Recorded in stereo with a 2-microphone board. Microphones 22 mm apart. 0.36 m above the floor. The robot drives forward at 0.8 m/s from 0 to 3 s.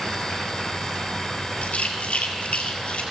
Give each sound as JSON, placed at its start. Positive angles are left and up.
{"t": 1.6, "sound": "a rattle", "side_deg": 90, "distance_m": 2.0}